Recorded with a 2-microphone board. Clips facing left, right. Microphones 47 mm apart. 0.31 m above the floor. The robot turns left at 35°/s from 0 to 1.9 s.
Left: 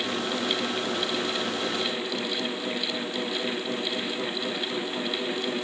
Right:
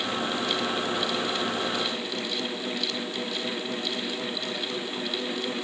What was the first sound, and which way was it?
Only background noise.